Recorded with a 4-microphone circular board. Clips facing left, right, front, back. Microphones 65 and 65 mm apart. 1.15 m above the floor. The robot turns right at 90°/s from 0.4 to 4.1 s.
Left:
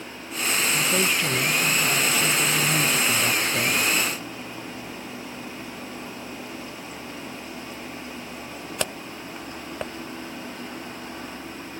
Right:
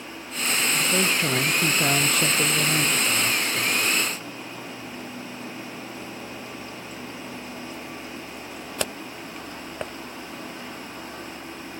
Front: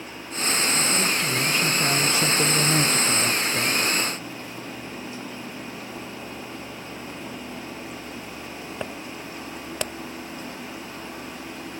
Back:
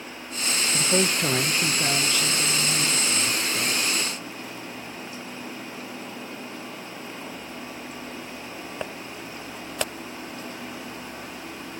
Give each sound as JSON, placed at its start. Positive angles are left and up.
{"t": 0.7, "sound": "a man speaking", "azimuth_deg": 170, "distance_m": 0.7}